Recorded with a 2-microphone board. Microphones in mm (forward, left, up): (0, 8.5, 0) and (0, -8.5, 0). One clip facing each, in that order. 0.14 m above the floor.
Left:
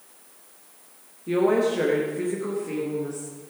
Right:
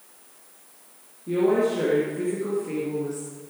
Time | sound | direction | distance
1.3 | a woman speaking | 40° left (ahead or behind) | 2 m